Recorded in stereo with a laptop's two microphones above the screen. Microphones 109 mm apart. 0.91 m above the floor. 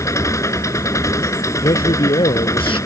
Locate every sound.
0.0 s an engine running: 30° left (ahead or behind)
1.6 s a man speaking: 55° left (ahead or behind)